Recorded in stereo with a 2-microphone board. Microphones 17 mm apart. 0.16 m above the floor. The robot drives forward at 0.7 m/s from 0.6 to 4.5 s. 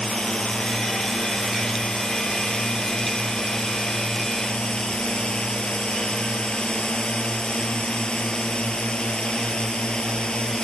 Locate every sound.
0.0 s a drone: 55° left (ahead or behind); by 10.7 s 60° left (ahead or behind)